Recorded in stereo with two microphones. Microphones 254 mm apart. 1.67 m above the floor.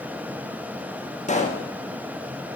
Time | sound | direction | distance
1.3 | a pop | 30° left (ahead or behind) | 1.3 m